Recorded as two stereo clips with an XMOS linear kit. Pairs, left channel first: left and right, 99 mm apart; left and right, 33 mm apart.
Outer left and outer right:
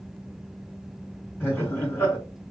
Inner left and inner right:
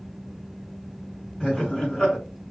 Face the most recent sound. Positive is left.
turn(degrees=25)  # may be behind; listen again after turning